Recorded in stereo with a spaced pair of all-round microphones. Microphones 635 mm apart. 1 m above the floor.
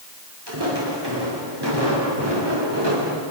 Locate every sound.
0.5 s footsteps: 40° right (ahead or behind), 9.5 m